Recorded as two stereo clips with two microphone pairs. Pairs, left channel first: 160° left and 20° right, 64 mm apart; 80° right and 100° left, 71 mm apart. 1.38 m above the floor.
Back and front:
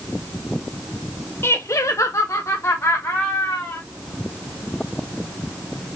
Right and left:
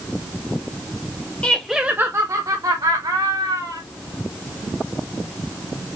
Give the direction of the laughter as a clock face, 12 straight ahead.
5 o'clock.